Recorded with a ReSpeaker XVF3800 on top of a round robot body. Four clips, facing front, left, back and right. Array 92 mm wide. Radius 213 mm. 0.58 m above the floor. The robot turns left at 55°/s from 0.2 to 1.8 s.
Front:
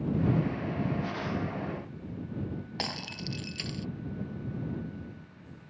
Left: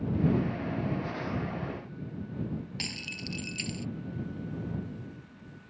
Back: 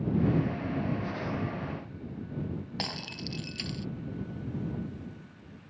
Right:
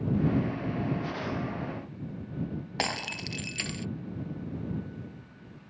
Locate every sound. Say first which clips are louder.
2.8 s breaking glass: right 7 dB, front 1 dB; 85° right